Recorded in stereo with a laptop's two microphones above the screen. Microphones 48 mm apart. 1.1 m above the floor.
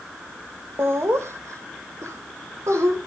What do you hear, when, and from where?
0.8 s laughter: 55° right (ahead or behind), 1.1 m; by 3.0 s 80° right, 2.5 m